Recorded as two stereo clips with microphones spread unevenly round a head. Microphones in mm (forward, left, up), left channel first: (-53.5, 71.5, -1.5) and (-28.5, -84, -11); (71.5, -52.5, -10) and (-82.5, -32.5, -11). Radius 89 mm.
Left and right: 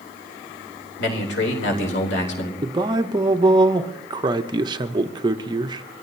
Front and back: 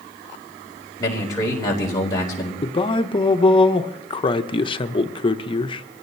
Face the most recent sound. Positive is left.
turn(degrees=-40)